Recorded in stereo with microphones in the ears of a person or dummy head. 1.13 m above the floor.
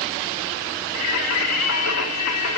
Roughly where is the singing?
Left.